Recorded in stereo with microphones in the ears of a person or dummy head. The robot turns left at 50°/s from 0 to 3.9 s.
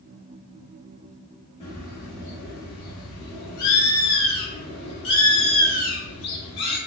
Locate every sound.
1.6 s a bird: 145° left, 1.1 m; by 6.8 s 30° left, 1.1 m